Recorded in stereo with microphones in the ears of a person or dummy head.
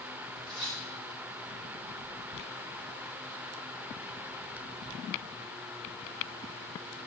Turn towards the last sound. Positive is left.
turn(degrees=30)  # may be behind; listen again after turning